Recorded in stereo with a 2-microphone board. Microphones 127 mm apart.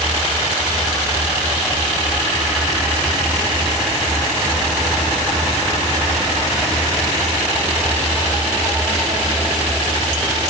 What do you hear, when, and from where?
Only background noise.